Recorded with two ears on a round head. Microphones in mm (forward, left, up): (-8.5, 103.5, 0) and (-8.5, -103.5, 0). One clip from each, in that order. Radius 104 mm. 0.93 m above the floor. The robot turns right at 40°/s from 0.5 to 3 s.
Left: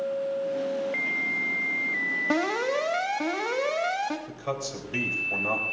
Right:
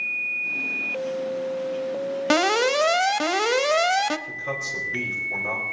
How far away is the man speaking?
About 4 m.